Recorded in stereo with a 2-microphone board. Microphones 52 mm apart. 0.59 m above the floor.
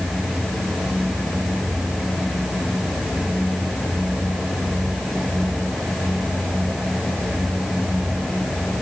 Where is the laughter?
I don't hear laughter.